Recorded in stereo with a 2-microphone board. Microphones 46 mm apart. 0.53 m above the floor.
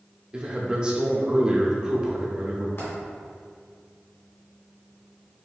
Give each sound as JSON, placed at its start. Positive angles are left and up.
{"t": 0.3, "sound": "a man speaking", "side_deg": -25, "distance_m": 0.8}
{"t": 2.8, "sound": "a dropped coin", "side_deg": 70, "distance_m": 1.9}